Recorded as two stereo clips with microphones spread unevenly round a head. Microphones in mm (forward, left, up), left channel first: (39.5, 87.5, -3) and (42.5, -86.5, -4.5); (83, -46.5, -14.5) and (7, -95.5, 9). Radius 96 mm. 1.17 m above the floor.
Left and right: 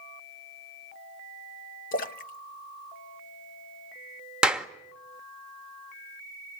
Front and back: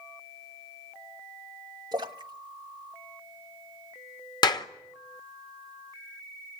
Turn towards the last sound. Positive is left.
turn(degrees=-5)